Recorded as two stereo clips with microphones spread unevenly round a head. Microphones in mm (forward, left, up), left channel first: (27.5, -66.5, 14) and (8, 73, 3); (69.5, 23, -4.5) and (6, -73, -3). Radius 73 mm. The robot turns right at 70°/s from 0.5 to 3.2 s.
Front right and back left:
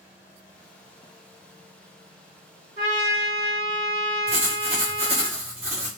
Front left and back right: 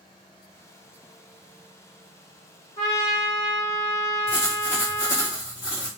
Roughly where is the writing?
Left.